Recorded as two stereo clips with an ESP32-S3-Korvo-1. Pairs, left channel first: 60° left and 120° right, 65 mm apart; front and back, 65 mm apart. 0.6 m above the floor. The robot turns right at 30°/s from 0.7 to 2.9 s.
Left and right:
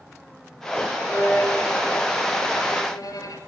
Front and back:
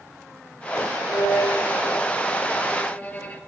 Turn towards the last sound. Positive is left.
turn(degrees=65)